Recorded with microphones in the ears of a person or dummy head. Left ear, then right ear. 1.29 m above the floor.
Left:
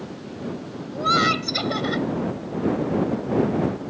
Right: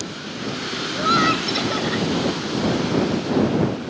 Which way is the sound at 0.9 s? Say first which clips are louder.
Right 1 dB; centre (ahead or behind).